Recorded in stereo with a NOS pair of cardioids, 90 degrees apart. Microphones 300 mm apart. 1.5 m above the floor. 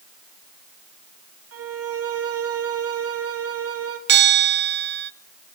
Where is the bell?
40° right, 0.9 m.